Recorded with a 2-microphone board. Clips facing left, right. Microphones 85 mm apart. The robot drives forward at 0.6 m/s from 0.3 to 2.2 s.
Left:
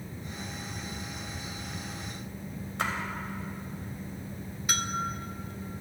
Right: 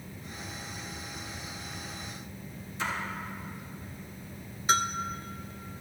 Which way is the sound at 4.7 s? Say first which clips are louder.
Right 6 dB; 30° right (ahead or behind).